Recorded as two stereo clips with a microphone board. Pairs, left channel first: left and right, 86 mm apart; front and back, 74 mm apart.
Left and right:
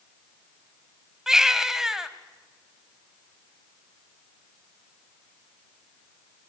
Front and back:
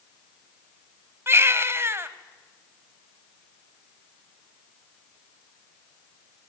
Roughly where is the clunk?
No clunk in this recording.